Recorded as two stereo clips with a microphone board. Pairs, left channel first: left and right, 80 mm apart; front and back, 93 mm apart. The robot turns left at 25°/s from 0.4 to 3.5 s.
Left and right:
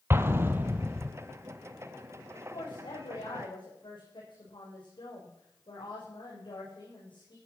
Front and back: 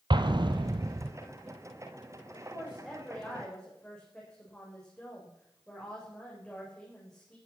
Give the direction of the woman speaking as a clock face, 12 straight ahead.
8 o'clock.